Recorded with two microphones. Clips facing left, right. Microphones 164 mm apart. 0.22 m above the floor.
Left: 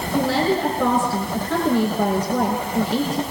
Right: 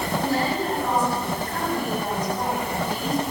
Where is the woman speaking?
80° left, 9 m.